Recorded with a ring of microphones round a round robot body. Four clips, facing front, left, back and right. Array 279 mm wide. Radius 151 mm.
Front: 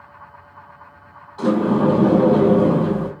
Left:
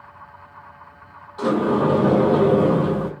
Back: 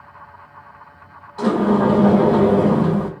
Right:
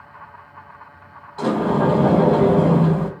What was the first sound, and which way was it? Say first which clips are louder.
A sliding door: even, back 1 dB; 140° right.